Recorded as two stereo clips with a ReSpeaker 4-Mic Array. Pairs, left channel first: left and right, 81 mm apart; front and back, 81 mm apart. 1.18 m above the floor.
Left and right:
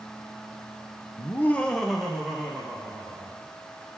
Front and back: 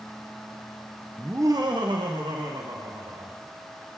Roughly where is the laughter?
Left.